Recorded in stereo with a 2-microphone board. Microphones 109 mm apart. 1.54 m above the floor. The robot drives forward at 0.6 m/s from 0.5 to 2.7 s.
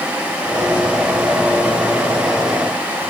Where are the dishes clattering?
No dishes clattering in this recording.